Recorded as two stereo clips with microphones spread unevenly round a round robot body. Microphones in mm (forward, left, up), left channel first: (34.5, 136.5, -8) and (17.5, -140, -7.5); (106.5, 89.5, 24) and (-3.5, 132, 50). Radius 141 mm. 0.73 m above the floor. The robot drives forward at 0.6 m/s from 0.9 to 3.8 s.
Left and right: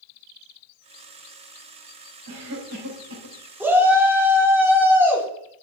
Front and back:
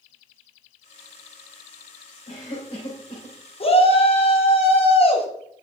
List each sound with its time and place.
2.3 s a cough: 60° right, 3 m; by 3.4 s 75° right, 3 m
3.6 s a shout: 10° right, 2.5 m